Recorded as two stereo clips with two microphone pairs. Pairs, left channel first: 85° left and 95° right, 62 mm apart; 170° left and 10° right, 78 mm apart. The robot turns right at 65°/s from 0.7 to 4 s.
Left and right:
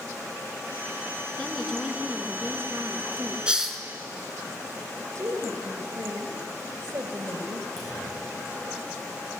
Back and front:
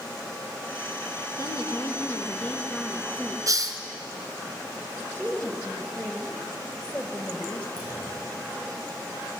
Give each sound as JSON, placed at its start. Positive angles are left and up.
{"t": 1.4, "sound": "a woman speaking", "azimuth_deg": 160, "distance_m": 2.0}
{"t": 3.5, "sound": "a hiss", "azimuth_deg": -25, "distance_m": 1.9}
{"t": 5.0, "sound": "a woman speaking", "azimuth_deg": -120, "distance_m": 3.0}
{"t": 7.8, "sound": "a clunk", "azimuth_deg": 5, "distance_m": 8.0}